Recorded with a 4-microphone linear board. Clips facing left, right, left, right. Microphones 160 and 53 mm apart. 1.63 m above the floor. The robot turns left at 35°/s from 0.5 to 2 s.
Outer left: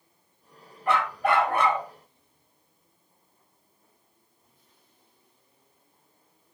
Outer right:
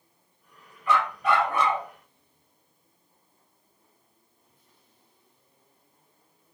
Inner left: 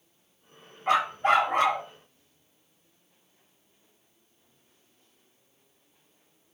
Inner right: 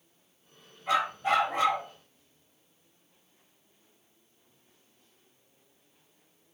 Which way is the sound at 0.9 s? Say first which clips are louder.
Even, inner left 4 dB; 105° left.